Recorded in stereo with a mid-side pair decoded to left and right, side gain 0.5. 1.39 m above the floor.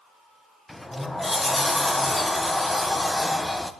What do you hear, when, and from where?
0.7 s a sliding door: 10° left, 1.3 m